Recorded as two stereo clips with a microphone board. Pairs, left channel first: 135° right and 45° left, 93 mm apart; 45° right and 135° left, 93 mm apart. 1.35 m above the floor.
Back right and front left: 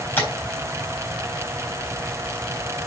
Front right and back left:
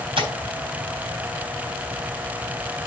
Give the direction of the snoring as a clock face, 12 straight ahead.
I don't hear snoring.